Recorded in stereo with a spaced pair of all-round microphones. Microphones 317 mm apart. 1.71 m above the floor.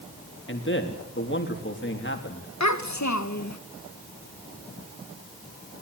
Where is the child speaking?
60° left (ahead or behind), 1.4 m.